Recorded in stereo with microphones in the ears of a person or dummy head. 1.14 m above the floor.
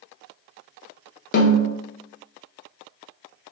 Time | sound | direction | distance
1.3 | a snare drum | 45° left (ahead or behind) | 0.8 m